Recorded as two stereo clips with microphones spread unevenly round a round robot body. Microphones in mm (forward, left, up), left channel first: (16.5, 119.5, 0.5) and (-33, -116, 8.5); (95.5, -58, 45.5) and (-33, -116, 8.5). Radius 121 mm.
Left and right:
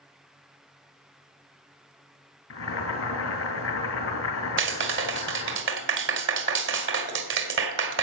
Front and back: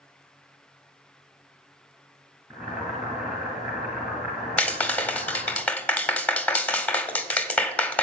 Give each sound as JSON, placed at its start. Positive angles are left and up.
{"t": 2.5, "sound": "boiling", "azimuth_deg": 115, "distance_m": 2.5}
{"t": 4.6, "sound": "a clap", "azimuth_deg": -65, "distance_m": 1.8}